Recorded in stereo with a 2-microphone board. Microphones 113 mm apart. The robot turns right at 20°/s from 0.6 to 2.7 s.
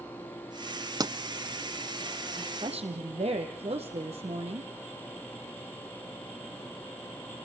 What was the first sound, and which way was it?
A pop, 35° right (ahead or behind).